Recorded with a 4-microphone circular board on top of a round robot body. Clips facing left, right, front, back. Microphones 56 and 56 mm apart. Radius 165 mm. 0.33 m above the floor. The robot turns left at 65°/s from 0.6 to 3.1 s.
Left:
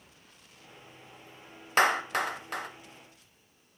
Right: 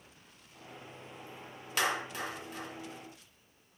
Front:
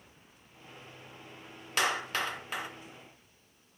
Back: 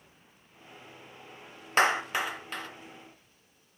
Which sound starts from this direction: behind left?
A clap, at 1.8 s.